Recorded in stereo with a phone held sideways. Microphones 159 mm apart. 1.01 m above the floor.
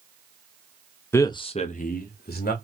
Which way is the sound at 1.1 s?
15° left (ahead or behind).